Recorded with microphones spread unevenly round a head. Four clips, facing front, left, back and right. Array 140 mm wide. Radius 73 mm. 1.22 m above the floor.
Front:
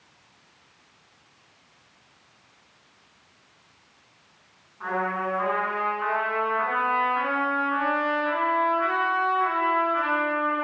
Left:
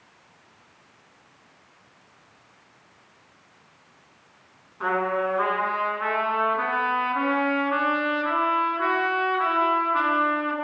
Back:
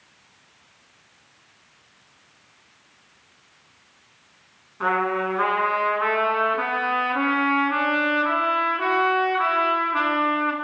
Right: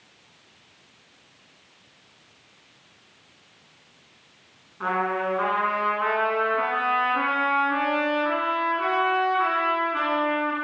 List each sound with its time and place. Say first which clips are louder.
4.8 s a trumpet: left 1 dB, back 5 dB; 165° right, 9 m